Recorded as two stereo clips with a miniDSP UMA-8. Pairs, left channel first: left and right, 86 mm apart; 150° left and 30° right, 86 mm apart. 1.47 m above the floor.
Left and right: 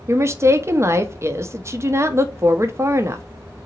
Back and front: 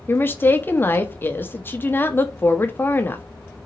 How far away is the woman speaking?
About 0.7 m.